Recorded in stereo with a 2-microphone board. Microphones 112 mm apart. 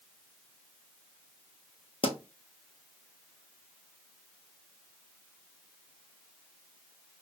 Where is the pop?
60° left (ahead or behind), 0.7 m.